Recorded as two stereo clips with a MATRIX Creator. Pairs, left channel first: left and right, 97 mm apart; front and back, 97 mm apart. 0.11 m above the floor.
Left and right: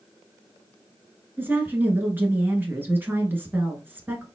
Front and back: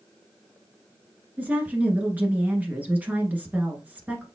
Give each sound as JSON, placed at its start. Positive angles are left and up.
{"t": 1.4, "sound": "a woman speaking", "azimuth_deg": -130, "distance_m": 1.2}